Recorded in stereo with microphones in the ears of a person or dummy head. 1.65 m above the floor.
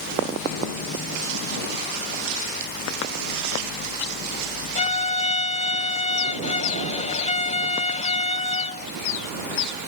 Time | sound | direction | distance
4.8 | a violin | 35° left (ahead or behind) | ?